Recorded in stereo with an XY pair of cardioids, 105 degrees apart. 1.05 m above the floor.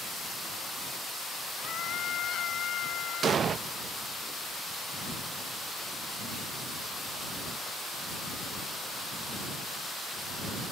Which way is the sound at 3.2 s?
50° right.